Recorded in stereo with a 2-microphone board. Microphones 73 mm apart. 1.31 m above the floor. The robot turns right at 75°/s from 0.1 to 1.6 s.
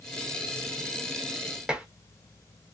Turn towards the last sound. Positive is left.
turn(degrees=-10)  # may be behind; listen again after turning